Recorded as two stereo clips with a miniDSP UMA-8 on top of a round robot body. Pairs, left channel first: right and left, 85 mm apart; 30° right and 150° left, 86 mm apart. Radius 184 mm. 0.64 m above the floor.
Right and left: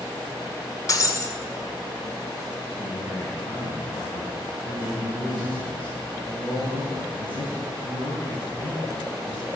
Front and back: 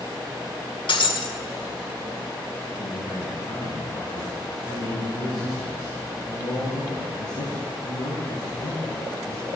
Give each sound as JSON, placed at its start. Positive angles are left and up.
{"t": 0.9, "sound": "breaking glass", "azimuth_deg": -40, "distance_m": 1.9}
{"t": 2.8, "sound": "a man speaking", "azimuth_deg": -70, "distance_m": 6.5}